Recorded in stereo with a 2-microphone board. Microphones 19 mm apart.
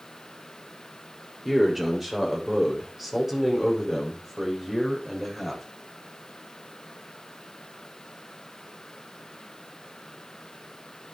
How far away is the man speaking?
About 5.5 m.